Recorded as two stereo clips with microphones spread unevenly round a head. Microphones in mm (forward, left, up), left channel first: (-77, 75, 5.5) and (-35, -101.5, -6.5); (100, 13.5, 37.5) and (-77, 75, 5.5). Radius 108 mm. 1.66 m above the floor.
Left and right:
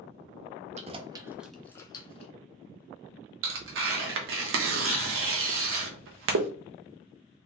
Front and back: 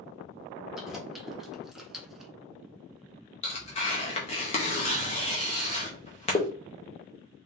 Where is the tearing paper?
75° right, 1.1 m.